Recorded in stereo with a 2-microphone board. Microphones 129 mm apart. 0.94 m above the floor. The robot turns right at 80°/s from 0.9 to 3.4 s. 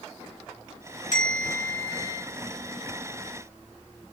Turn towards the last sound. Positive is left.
turn(degrees=-105)